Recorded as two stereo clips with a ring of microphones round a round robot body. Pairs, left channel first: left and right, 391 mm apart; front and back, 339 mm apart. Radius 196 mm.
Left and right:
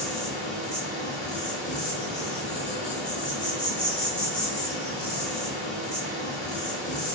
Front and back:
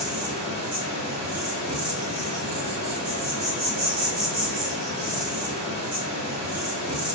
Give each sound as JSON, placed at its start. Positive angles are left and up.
{"t": 0.0, "sound": "an insect", "azimuth_deg": 175, "distance_m": 1.8}